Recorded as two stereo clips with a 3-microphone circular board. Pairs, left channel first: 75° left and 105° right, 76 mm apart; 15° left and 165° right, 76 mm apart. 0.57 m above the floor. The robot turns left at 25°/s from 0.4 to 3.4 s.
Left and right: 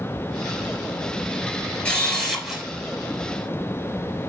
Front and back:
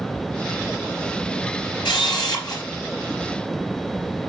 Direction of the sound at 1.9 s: 5° right.